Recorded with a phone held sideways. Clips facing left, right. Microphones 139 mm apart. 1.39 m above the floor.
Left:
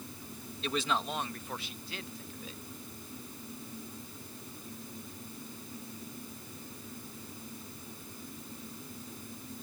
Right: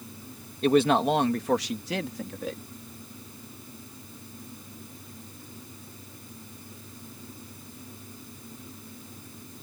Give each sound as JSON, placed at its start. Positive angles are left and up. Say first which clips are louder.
{"t": 0.6, "sound": "a man speaking", "louder": "right 13 dB", "side_deg": -50}